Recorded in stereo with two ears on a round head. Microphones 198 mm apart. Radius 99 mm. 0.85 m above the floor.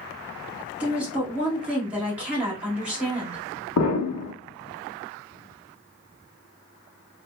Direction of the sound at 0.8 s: 5° right (ahead or behind).